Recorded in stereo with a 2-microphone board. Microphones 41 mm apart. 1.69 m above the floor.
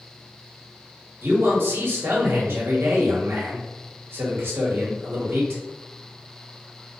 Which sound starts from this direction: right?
A man speaking, at 1.2 s.